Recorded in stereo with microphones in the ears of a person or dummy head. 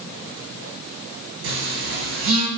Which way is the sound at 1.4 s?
65° right (ahead or behind).